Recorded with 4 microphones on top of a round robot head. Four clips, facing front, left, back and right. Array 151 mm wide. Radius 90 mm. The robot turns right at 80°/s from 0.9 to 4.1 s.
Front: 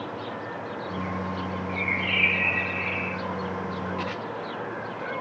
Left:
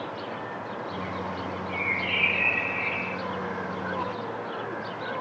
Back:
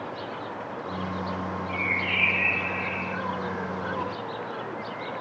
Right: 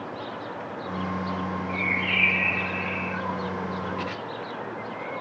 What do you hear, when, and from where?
1.7 s a bird: 110° right, 9.5 m; by 3.2 s 5° left, 9.5 m